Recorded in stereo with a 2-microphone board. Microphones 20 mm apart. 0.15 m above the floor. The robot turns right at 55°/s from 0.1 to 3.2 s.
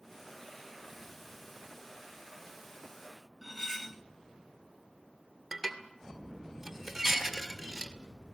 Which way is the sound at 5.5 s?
Centre (ahead or behind).